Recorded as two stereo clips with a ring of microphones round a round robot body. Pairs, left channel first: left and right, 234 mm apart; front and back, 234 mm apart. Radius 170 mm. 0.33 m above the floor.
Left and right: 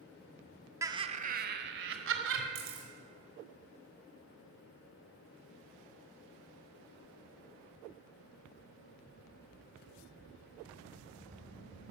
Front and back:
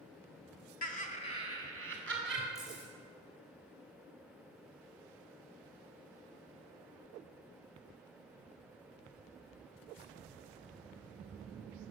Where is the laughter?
20° right, 1.1 m; by 2.5 s 90° right, 1.9 m.